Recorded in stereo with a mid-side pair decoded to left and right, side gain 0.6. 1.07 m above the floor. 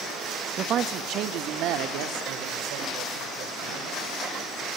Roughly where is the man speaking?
Ahead right.